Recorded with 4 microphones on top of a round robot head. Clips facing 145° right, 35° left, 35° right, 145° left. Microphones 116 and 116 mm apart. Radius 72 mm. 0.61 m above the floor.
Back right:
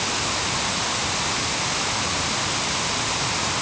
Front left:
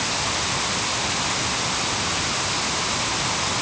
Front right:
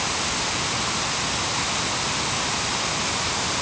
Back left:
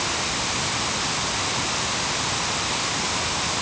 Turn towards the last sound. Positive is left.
No sound to turn to.